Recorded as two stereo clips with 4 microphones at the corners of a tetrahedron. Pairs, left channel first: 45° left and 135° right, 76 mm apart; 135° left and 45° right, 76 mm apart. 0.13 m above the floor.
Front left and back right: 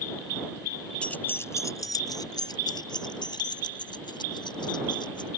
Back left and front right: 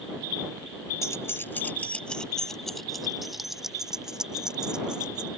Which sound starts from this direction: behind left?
Keys jangling, at 1.0 s.